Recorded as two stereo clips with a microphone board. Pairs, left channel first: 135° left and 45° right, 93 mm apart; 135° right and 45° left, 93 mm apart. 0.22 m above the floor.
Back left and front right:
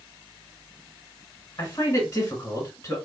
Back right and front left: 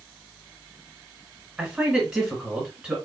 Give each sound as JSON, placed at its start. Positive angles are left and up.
{"t": 1.6, "sound": "a man speaking", "azimuth_deg": 125, "distance_m": 1.7}